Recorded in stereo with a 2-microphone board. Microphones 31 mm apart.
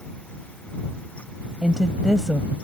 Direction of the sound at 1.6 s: 10° right (ahead or behind).